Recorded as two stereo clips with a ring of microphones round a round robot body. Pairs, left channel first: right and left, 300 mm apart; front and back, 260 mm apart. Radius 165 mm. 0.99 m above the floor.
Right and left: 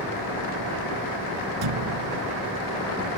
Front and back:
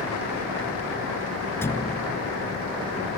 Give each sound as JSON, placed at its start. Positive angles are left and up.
{"t": 1.6, "sound": "a thud", "azimuth_deg": 80}